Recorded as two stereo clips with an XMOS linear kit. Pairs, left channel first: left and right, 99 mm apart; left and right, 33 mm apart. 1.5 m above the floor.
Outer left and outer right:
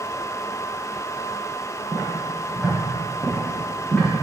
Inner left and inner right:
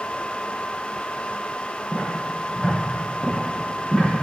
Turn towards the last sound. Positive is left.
turn(degrees=20)  # may be behind; listen again after turning